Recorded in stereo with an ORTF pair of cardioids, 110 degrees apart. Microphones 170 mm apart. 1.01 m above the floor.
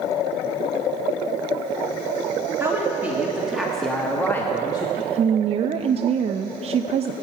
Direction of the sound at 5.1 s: 40° right.